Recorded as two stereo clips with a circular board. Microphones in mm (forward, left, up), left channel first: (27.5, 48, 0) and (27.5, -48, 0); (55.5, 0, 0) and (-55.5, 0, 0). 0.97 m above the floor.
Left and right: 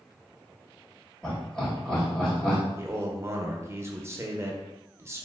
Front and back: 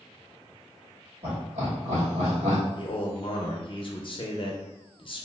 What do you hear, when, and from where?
1.2 s laughter: 170° left, 1.5 m
2.8 s a man speaking: 30° right, 0.6 m